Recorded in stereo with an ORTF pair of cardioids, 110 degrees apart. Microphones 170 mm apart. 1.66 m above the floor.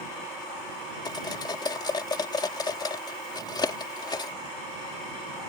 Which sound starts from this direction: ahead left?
Cutlery clinking, at 1.1 s.